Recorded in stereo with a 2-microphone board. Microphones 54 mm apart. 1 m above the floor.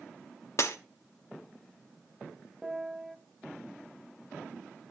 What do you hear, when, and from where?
0.6 s breaking glass: 60° left (ahead or behind), 1.0 m
2.6 s a piano: 10° right (ahead or behind), 0.7 m